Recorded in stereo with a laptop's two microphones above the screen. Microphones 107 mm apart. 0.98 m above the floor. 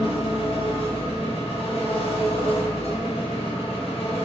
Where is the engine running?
60° left (ahead or behind), 0.9 m.